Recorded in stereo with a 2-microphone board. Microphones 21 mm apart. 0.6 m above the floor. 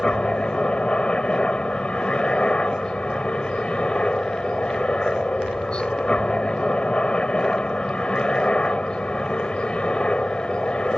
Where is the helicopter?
60° left (ahead or behind).